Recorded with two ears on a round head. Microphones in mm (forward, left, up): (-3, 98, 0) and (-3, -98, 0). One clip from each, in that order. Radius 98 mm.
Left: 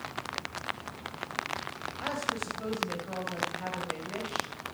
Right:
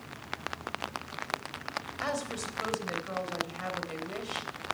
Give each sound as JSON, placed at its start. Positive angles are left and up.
{"t": 2.0, "sound": "a woman speaking", "side_deg": -55, "distance_m": 3.5}